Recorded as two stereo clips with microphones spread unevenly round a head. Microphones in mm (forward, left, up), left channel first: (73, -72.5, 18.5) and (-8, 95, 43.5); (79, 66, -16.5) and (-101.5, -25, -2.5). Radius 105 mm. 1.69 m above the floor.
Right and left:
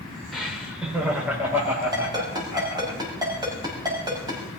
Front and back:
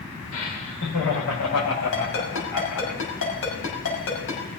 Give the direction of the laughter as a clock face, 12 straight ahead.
11 o'clock.